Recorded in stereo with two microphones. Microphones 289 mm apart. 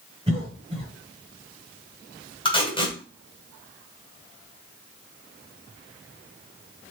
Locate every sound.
0.3 s a cough: 20° right (ahead or behind), 1.3 m
2.5 s tape being pulled: 20° left (ahead or behind), 2.0 m